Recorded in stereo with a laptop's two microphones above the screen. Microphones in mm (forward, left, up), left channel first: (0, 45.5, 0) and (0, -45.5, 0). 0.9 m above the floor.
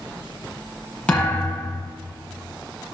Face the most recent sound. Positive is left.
turn(degrees=15)  # may be behind; listen again after turning